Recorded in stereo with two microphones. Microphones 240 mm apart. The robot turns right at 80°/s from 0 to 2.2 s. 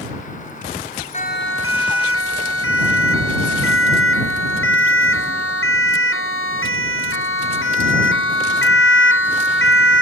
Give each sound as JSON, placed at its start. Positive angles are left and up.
{"t": 1.1, "sound": "a siren", "side_deg": 30}